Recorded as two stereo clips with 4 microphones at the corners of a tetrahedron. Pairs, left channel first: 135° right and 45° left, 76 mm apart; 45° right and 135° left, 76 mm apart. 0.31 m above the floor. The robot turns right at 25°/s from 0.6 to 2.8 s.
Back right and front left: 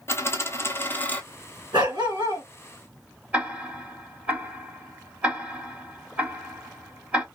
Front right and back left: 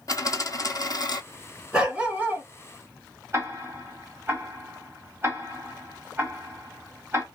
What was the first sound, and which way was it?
A dropped coin, 80° right.